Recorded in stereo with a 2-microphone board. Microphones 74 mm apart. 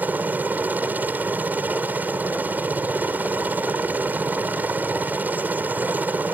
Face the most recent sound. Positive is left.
turn(degrees=-20)  # may be behind; listen again after turning